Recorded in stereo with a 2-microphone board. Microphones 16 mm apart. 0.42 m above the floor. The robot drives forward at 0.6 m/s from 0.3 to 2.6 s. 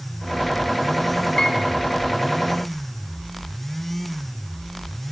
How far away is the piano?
About 2.5 m.